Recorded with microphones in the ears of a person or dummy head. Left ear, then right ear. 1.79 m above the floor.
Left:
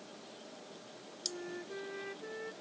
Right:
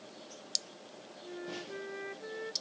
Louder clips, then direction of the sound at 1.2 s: Left 1 dB; 20° right (ahead or behind).